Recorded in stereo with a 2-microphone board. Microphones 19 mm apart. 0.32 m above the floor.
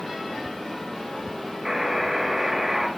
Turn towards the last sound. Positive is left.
turn(degrees=-25)  # may be behind; listen again after turning